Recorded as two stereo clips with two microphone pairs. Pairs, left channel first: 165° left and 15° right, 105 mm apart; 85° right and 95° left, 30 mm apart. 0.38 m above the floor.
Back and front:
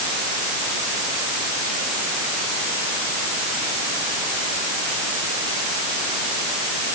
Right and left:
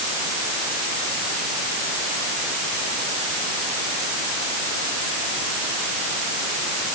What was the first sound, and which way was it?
Only background noise.